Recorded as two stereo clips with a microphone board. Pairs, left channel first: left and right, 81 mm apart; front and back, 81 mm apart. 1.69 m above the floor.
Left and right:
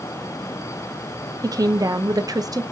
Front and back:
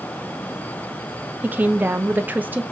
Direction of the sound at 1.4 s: 115° right.